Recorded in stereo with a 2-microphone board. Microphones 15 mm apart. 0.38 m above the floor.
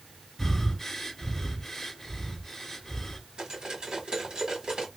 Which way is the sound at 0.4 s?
25° left (ahead or behind).